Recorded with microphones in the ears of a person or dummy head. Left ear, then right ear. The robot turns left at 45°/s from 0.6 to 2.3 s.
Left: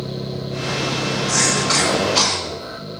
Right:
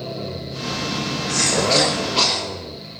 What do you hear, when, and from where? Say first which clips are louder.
1.3 s a cough: right 1 dB; 150° left, 8.5 m; by 2.4 s 100° left, 8.5 m